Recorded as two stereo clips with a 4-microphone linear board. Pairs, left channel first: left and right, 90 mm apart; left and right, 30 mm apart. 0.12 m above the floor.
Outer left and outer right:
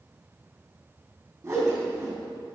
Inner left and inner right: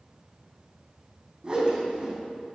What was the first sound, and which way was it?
A whoosh, 30° right (ahead or behind).